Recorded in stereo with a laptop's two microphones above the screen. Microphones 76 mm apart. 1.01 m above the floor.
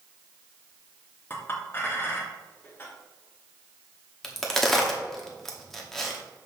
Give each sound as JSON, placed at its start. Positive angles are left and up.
{"t": 1.3, "sound": "a clink", "side_deg": 30, "distance_m": 1.2}
{"t": 4.2, "sound": "a crack", "side_deg": 5, "distance_m": 0.9}